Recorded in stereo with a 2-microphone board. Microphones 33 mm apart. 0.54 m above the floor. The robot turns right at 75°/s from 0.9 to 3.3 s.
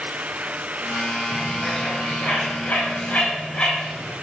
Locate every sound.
1.3 s a bird: 15° right (ahead or behind), 4 m; by 4.1 s 45° left (ahead or behind), 4 m